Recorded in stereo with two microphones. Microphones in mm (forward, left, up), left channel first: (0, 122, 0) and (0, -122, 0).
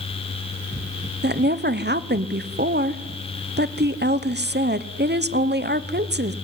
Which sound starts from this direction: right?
A woman speaking, at 1.2 s.